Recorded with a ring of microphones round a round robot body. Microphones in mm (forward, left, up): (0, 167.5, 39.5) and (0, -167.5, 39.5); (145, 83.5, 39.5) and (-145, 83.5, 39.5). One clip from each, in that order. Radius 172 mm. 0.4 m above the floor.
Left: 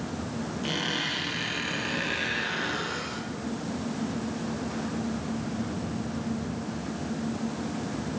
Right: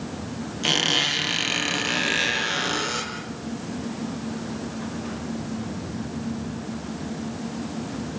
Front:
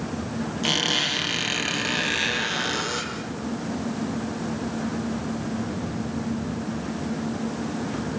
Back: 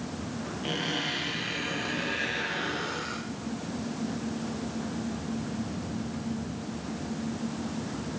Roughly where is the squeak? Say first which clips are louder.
Right 9 dB, front 9 dB; ahead right.